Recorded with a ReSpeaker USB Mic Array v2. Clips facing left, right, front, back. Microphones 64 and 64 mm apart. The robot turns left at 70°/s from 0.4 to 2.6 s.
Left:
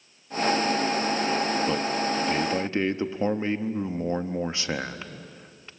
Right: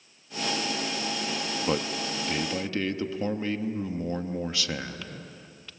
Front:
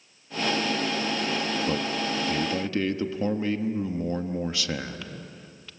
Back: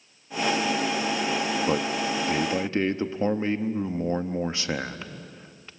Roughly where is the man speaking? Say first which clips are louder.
Left 3 dB, back 2 dB; behind right.